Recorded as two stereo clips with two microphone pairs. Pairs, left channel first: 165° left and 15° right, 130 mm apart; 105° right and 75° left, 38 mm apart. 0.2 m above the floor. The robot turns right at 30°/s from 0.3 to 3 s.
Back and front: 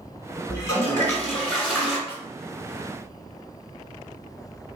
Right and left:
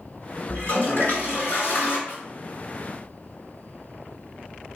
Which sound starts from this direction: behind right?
A toilet flushing, at 0.5 s.